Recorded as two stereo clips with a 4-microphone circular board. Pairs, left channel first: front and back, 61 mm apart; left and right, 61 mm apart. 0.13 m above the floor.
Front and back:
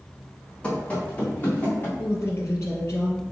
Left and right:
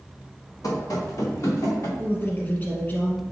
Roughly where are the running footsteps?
Left.